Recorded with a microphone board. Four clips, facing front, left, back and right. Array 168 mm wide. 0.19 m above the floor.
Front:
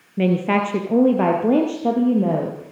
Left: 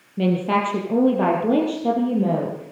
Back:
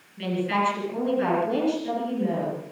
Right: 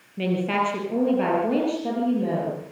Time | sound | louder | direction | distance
0.2 | a woman speaking | left 3 dB, front 6 dB | 15° left | 4 m